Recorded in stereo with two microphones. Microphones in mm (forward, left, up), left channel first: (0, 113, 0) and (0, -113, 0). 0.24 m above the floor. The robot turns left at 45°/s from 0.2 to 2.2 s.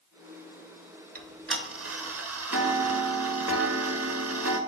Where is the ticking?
45° right, 0.6 m; by 4.6 s 90° right, 0.6 m.